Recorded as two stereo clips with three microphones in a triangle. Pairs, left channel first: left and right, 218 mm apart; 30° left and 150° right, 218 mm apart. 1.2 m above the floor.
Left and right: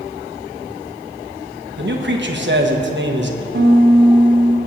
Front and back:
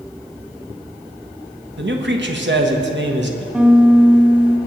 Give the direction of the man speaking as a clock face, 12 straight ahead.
4 o'clock.